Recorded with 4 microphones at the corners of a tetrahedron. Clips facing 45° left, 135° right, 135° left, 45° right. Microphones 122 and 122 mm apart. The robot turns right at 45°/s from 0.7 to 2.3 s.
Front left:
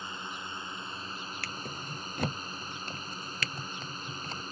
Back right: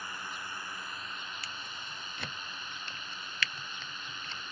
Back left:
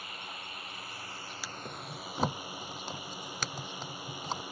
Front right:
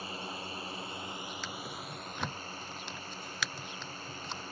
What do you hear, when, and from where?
0.0 s a drone: 10° right; by 4.5 s 65° left
1.4 s a drawer: 55° left; by 4.4 s 95° left